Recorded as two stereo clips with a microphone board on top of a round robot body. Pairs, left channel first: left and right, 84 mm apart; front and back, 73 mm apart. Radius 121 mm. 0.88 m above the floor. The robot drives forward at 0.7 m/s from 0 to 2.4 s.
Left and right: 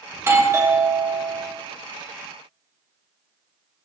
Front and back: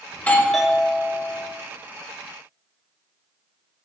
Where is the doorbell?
45° right, 0.8 m; by 1.5 s 150° right, 1.0 m.